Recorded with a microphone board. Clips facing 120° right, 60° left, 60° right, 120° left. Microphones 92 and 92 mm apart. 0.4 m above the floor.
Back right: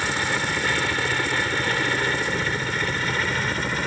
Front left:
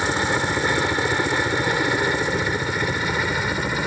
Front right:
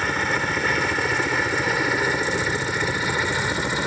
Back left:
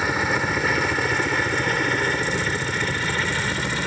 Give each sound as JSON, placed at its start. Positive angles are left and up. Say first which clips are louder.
{"t": 0.0, "sound": "a helicopter", "louder": "front left 3 dB, back left 1 dB", "azimuth_deg": 40}